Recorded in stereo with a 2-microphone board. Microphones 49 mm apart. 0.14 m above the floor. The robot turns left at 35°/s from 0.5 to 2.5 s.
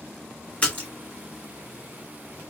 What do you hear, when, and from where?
0.6 s a splash: 20° left (ahead or behind), 1.6 m; by 0.9 s 25° left (ahead or behind), 1.6 m